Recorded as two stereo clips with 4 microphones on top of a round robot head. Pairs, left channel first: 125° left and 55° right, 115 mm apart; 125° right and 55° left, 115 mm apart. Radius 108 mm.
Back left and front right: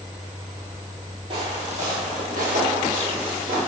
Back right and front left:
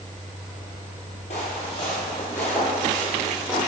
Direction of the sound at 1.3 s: 100° right.